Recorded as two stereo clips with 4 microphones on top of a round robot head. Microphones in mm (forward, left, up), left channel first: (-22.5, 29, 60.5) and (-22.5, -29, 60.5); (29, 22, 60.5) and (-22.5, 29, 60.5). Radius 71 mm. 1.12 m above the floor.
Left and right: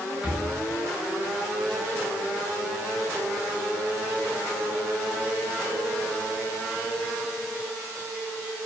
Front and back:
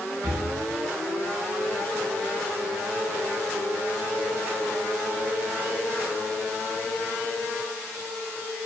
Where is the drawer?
165° right, 2.5 m.